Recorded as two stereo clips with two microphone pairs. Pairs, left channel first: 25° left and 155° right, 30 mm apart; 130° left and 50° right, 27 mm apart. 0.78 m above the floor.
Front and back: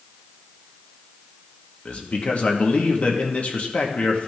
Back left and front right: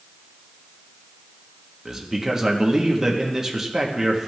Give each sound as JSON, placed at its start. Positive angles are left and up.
{"t": 1.9, "sound": "a man speaking", "azimuth_deg": 15, "distance_m": 1.2}